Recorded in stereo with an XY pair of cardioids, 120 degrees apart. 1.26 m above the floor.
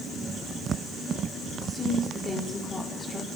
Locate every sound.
1.6 s a woman speaking: 25° left, 4 m